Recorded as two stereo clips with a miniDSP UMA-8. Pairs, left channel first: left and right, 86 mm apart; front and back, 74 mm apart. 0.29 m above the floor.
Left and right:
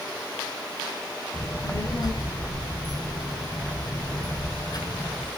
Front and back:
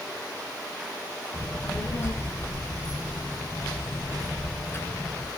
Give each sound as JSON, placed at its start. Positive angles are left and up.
{"t": 1.3, "sound": "a child speaking", "azimuth_deg": 55, "distance_m": 3.0}